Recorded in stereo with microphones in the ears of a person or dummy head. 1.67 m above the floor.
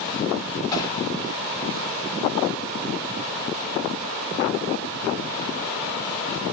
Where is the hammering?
20° left (ahead or behind), 9 m.